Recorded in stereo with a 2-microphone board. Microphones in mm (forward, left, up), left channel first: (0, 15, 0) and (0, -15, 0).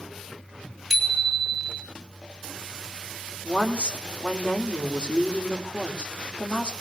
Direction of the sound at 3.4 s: 35° left (ahead or behind).